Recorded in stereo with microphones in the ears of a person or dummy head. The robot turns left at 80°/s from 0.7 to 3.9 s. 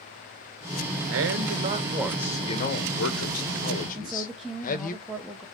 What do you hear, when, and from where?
1.1 s a man speaking: 95° right, 1.1 m; by 5.0 s 40° left, 1.1 m
4.0 s a woman speaking: 5° right (ahead or behind), 0.8 m